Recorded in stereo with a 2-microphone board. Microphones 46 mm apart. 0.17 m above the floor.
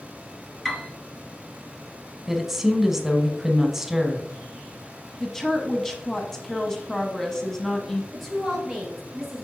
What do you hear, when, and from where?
0.7 s a piano: 5° left (ahead or behind), 1.5 m
2.3 s a woman speaking: 10° right (ahead or behind), 1.1 m
5.2 s a woman speaking: 10° left (ahead or behind), 1.0 m
8.1 s a woman speaking: centre (ahead or behind), 3.5 m